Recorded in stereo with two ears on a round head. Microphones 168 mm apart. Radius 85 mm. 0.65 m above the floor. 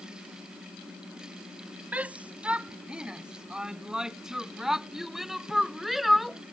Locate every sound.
1.9 s a shout: 10° right (ahead or behind); by 6.4 s centre (ahead or behind)